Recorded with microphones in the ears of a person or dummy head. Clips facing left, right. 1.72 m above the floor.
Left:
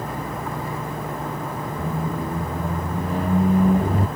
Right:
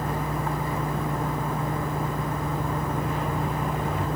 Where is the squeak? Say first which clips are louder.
Left 2 dB; 30° left (ahead or behind).